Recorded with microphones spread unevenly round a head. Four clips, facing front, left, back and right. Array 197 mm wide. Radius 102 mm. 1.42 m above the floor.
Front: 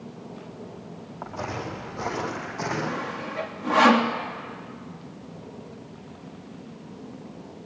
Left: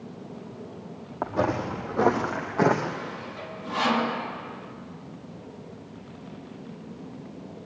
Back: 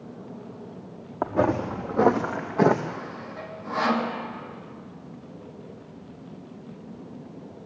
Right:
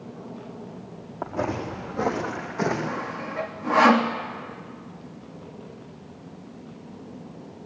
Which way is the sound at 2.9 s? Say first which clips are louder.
Right 3 dB, front 4 dB; 40° right.